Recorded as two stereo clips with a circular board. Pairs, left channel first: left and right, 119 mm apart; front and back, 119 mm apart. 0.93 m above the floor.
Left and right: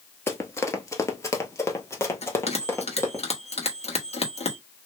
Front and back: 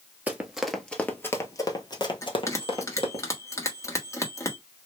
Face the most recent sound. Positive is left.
turn(degrees=65)